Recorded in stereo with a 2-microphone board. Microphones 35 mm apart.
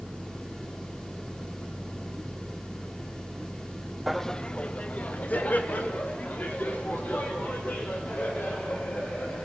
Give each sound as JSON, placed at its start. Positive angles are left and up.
{"t": 4.1, "sound": "laughter", "side_deg": -5, "distance_m": 0.5}